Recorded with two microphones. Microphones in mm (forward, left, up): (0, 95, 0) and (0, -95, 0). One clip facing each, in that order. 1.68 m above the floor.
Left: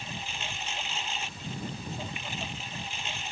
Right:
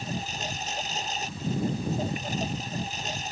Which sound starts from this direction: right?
A lawn mower, at 0.0 s.